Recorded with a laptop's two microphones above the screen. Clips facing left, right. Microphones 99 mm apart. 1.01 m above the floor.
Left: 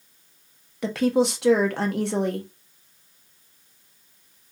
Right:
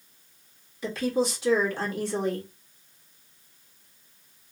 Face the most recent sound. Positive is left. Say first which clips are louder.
# left 5 dB
turn(degrees=65)  # may be behind; listen again after turning